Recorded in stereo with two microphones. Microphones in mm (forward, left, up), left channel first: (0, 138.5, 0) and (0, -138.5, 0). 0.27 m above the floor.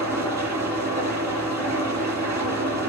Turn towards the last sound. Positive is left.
turn(degrees=-75)  # may be behind; listen again after turning